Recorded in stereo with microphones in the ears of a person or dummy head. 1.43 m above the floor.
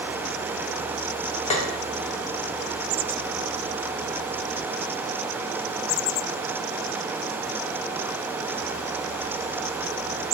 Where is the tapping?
30° left (ahead or behind), 0.5 m.